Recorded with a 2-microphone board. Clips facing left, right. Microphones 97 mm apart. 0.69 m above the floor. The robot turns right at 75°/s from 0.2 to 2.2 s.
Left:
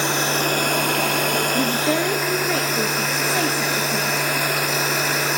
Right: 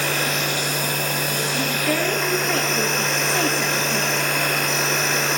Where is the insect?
25° left, 1.3 m; by 5.4 s 175° left, 1.3 m.